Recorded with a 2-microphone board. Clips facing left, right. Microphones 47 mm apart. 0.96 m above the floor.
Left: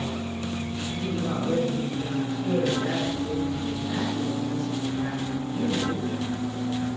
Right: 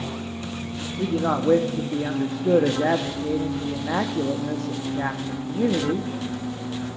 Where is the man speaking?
70° right (ahead or behind), 1.1 m.